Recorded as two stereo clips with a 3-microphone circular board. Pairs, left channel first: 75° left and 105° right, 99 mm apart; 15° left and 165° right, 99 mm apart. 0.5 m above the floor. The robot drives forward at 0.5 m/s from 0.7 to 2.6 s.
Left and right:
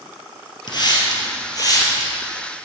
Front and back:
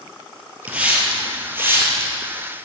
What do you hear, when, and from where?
0.7 s a hiss: 120° left, 2.5 m; by 2.1 s 130° left, 3 m